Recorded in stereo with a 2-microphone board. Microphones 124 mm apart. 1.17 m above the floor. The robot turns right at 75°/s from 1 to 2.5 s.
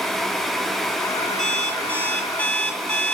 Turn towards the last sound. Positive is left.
turn(degrees=175)